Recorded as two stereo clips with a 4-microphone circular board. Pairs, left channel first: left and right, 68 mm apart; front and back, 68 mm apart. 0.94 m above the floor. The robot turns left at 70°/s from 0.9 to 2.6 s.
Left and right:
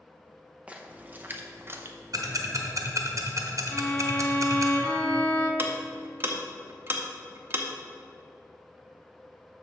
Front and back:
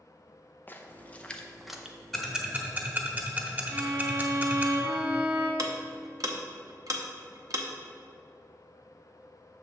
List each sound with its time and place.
0.7 s a splash: 35° right, 0.6 m; by 2.0 s 110° right, 0.6 m
2.1 s ticking: 85° right, 0.9 m; by 4.7 s 120° right, 0.9 m
3.7 s a violin: 160° left, 1.5 m
5.6 s ticking: 145° right, 0.8 m